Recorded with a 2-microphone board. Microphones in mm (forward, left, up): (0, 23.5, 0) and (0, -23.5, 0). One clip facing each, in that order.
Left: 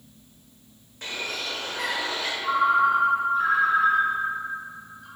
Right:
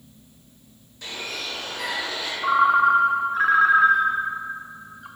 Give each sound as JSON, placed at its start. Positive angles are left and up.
{"t": 1.0, "sound": "a bird", "side_deg": 45, "distance_m": 1.3}
{"t": 2.4, "sound": "a ringtone", "side_deg": -80, "distance_m": 0.6}